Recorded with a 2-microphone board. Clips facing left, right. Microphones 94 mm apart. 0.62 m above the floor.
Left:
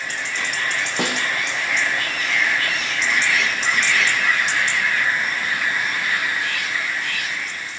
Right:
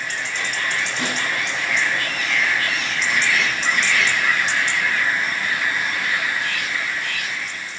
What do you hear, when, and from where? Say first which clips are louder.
1.0 s a snare drum: left 2 dB; 70° left (ahead or behind), 4 m